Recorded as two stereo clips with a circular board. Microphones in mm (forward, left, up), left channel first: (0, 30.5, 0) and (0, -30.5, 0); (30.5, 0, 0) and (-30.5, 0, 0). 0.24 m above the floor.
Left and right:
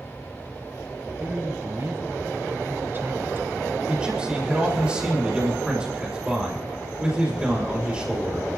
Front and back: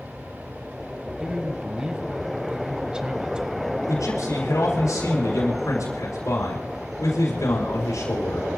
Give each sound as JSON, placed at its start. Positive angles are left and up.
{"t": 1.2, "sound": "a man speaking", "azimuth_deg": -110, "distance_m": 1.3}
{"t": 3.9, "sound": "a man speaking", "azimuth_deg": -15, "distance_m": 5.0}